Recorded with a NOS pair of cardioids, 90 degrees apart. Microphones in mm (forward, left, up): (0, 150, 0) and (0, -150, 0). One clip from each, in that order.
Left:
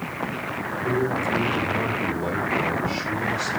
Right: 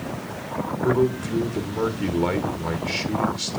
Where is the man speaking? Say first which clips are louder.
Right 2 dB; 40° right, 1.3 m.